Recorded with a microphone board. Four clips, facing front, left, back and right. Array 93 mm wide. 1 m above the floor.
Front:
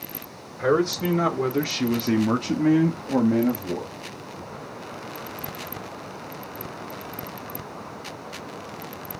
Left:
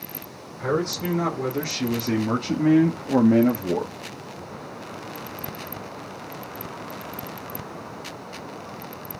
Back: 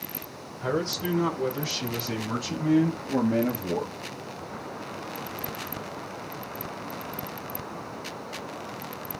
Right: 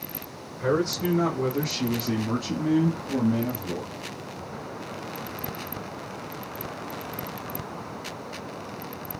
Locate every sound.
0.6 s a man speaking: 5° right, 4 m; by 4.0 s 105° left, 1.9 m